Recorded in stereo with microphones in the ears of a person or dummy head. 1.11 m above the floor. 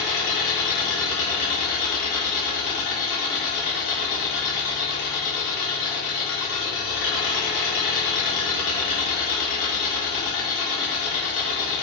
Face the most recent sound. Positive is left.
turn(degrees=55)  # may be behind; listen again after turning